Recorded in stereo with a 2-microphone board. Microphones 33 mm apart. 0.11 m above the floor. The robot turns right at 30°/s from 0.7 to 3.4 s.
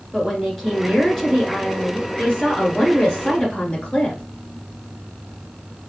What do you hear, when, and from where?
0.1 s a woman speaking: 5° left (ahead or behind), 1.5 m; by 4.2 s 30° left (ahead or behind), 1.5 m